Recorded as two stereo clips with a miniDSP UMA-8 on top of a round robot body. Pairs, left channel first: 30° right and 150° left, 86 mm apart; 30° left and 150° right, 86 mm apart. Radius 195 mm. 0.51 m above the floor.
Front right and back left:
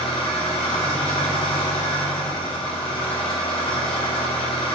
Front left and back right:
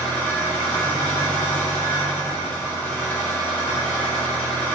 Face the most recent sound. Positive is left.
turn(degrees=-40)